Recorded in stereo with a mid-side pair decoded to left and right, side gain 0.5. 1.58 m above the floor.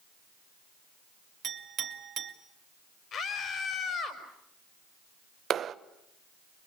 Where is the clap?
55° right, 1.1 m.